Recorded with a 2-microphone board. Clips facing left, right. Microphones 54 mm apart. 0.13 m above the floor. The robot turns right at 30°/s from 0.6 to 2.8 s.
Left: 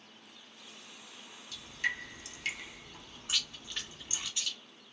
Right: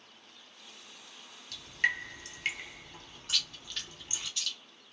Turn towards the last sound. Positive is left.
turn(degrees=15)  # may be behind; listen again after turning